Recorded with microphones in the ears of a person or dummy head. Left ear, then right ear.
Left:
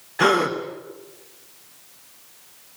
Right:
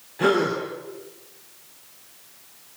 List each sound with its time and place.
0.2 s a gasp: 30° left (ahead or behind), 2.5 m